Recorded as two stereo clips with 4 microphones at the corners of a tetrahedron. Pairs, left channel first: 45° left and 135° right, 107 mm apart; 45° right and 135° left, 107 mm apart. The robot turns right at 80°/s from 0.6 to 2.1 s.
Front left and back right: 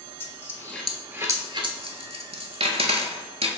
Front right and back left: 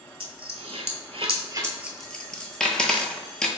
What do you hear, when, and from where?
0.2 s a dropped coin: 110° left, 0.6 m; by 3.5 s 130° right, 0.6 m